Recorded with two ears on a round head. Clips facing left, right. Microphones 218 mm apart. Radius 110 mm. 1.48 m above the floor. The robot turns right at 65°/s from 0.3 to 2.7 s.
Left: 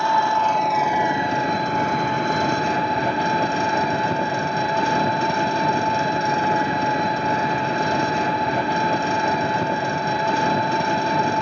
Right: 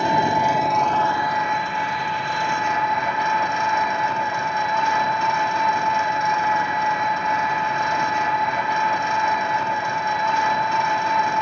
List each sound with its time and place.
0.0 s an engine running: 25° right, 1.1 m; by 11.4 s 130° left, 1.1 m